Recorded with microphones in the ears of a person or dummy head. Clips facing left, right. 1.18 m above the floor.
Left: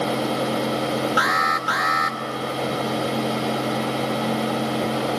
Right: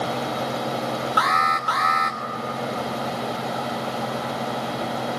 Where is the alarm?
5° left (ahead or behind), 1.2 m.